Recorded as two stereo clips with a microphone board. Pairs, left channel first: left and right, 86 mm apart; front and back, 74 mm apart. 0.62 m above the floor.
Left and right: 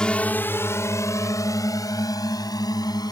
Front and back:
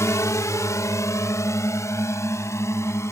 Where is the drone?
15° left; by 3.1 s 50° left.